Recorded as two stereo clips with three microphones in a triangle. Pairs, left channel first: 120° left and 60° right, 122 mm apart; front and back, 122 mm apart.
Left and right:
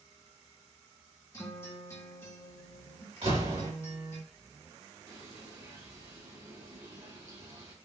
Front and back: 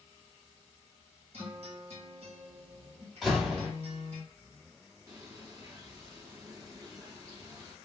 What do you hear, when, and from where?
1.3 s a guitar: 175° right, 1.2 m
3.2 s a door slam: 90° right, 1.8 m
5.1 s a bird: 115° right, 1.7 m